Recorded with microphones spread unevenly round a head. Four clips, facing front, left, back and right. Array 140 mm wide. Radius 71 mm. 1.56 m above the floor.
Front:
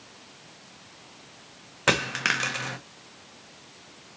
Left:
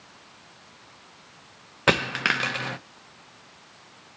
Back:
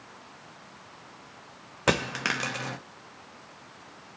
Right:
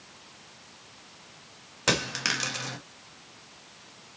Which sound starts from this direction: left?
A dropped coin, at 1.9 s.